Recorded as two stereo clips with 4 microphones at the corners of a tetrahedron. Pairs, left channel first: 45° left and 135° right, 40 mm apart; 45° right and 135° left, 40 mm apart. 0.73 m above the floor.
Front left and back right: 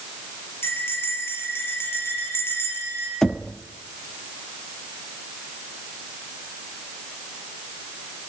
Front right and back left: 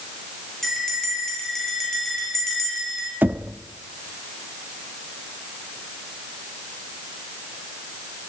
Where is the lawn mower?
No lawn mower in this recording.